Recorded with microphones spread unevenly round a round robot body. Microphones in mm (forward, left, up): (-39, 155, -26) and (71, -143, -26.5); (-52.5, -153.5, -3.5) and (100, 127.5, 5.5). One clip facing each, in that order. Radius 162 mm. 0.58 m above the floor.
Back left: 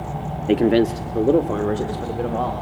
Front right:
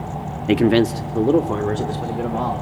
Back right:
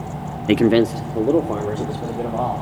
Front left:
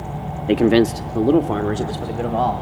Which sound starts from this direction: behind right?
A man speaking, at 0.5 s.